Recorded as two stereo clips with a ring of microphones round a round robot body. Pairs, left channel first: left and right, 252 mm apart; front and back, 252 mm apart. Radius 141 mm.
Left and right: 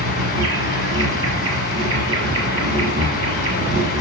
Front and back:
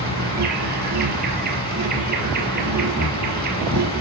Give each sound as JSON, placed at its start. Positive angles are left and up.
{"t": 0.0, "sound": "an insect", "azimuth_deg": -130, "distance_m": 5.5}